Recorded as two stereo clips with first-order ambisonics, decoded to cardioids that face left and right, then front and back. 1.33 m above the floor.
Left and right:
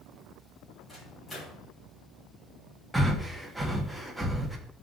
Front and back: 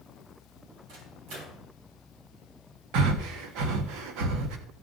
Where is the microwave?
165° left, 4 m.